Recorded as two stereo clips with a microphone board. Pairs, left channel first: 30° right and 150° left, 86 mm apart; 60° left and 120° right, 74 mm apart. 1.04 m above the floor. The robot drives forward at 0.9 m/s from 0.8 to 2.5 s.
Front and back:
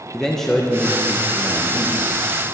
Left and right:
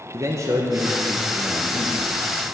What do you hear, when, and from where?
0.1 s a man speaking: 115° right, 0.8 m; by 2.1 s 160° right, 1.6 m